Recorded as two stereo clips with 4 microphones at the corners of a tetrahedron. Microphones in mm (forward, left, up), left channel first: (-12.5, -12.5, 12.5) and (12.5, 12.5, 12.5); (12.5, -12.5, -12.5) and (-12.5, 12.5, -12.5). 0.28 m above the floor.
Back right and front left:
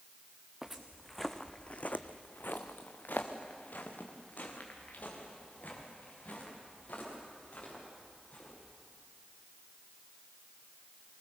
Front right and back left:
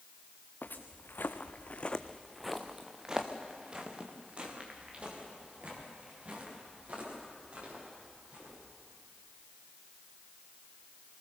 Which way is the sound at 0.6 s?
35° right.